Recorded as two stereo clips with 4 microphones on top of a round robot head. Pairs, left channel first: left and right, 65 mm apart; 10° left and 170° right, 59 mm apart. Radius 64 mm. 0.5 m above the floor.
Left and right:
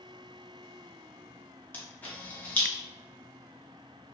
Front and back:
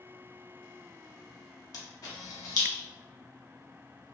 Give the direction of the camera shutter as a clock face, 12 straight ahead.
11 o'clock.